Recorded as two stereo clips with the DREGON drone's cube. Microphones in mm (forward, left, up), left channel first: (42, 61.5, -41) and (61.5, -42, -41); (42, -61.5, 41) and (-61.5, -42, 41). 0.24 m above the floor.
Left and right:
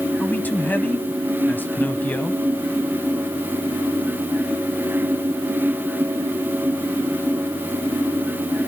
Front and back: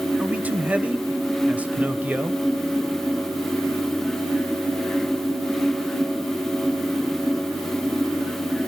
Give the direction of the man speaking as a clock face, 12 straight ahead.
8 o'clock.